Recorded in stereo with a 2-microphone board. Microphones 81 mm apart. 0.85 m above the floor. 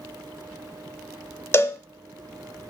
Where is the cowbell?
30° left (ahead or behind), 0.8 m.